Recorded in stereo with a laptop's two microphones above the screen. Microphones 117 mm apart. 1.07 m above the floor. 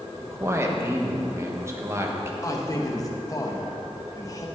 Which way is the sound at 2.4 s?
30° left (ahead or behind).